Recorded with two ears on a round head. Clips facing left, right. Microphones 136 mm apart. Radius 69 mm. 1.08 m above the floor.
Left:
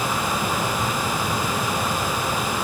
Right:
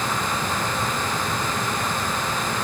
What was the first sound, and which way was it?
Only background noise.